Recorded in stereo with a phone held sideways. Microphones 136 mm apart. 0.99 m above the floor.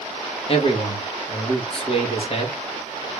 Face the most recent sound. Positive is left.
turn(degrees=45)  # may be behind; listen again after turning